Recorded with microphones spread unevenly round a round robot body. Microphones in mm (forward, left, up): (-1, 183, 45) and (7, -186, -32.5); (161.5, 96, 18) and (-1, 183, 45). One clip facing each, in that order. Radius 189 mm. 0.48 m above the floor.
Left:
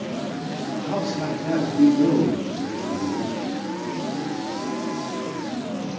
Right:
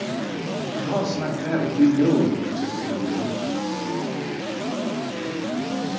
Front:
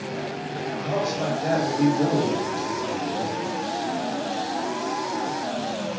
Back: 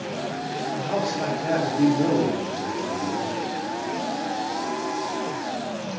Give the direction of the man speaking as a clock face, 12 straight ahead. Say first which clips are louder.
Right 1 dB, front 1 dB; 6 o'clock.